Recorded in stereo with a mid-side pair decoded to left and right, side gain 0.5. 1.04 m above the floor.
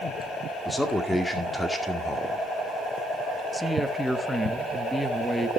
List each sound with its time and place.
0.7 s a man speaking: 10° left, 2 m
3.5 s a man speaking: 5° right, 1.3 m